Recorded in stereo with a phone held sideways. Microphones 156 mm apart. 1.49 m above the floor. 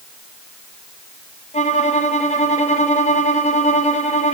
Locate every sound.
1.5 s a violin: 45° left (ahead or behind), 1.2 m